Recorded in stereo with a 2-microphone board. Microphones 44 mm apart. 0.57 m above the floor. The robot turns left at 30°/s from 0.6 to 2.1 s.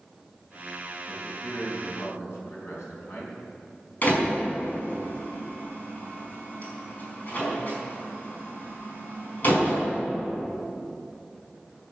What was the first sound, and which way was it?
A man speaking, 110° left.